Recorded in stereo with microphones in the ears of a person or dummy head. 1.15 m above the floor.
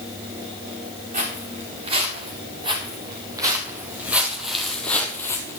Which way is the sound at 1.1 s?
40° right (ahead or behind).